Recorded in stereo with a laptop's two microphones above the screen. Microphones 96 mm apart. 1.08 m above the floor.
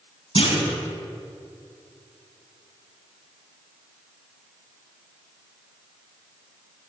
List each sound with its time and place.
0.3 s a clunk: 75° left (ahead or behind), 3.5 m